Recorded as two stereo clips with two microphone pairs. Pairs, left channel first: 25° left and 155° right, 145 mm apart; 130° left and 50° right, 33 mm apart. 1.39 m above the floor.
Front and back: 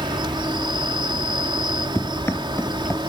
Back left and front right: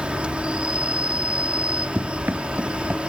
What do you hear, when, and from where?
0.0 s an insect: 100° right
1.9 s running footsteps: 50° right